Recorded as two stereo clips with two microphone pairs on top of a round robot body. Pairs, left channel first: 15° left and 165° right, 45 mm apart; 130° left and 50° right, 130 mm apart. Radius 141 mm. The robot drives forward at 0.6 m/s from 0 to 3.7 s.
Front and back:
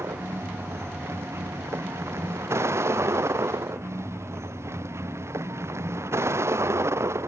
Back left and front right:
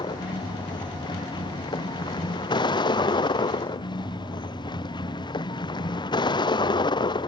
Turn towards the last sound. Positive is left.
turn(degrees=-175)